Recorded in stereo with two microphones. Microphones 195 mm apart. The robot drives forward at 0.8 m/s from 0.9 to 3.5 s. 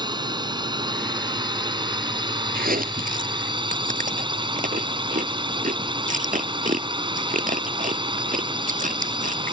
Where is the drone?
20° right (ahead or behind); by 9.5 s 25° right (ahead or behind).